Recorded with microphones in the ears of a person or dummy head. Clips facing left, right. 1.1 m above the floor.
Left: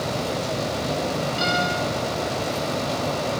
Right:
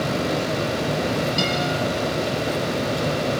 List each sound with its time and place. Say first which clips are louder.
1.4 s a guitar: right 1 dB; 60° right (ahead or behind), 9.5 m